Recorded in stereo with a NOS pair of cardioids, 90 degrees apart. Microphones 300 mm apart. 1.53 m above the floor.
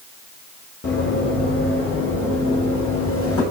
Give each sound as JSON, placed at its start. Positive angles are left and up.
{"t": 0.8, "sound": "running footsteps", "azimuth_deg": 40, "distance_m": 5.5}